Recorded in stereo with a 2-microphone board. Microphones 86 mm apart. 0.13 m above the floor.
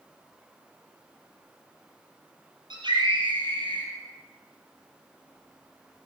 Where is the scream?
60° right (ahead or behind), 3.5 m; by 3.9 s 70° right (ahead or behind), 3.5 m.